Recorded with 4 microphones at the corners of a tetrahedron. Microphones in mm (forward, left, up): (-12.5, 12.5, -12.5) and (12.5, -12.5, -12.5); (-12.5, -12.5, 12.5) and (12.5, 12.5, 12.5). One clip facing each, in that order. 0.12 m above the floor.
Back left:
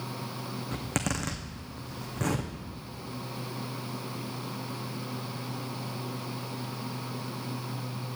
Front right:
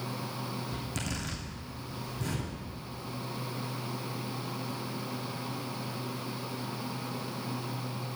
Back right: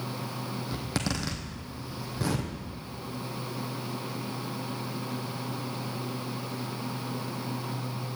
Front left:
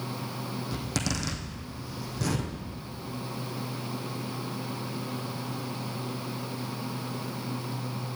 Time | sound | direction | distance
0.7 | a zipper | 155° left | 2.5 m